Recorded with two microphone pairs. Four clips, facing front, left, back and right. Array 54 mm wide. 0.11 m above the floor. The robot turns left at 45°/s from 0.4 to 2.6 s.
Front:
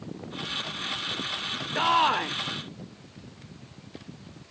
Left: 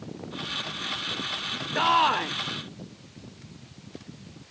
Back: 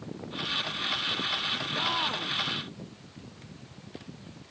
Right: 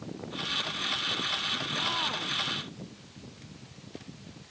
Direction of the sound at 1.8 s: 65° left.